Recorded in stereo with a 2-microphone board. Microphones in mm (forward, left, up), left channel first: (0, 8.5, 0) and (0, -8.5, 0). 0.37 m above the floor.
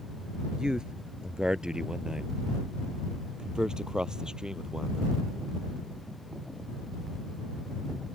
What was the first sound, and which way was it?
A man speaking, 45° right (ahead or behind).